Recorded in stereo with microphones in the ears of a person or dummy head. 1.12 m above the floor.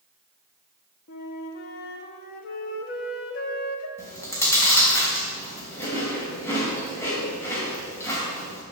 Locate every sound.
1.1 s a flute: 55° left (ahead or behind), 0.9 m
4.0 s chewing: 15° left (ahead or behind), 2.5 m